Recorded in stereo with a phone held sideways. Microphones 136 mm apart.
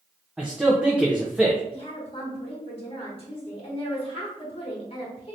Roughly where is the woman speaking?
Left.